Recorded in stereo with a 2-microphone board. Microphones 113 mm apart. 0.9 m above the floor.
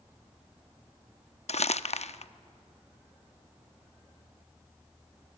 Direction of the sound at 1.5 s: 65° left (ahead or behind).